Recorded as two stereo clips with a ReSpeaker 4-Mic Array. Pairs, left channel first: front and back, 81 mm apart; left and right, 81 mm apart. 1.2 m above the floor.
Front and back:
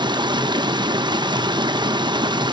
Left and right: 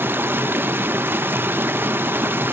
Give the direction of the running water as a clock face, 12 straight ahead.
5 o'clock.